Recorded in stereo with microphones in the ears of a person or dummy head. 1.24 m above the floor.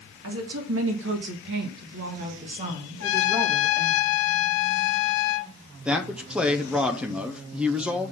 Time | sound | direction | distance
0.2 | a woman speaking | 80° right | 2 m
3.0 | a trumpet | 75° left (ahead or behind) | 0.6 m
5.8 | a man speaking | 5° right (ahead or behind) | 0.5 m